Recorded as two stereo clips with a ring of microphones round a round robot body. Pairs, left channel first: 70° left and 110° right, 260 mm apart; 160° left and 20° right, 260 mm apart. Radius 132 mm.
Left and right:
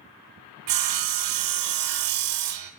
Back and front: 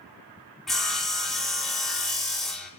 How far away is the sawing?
About 0.5 m.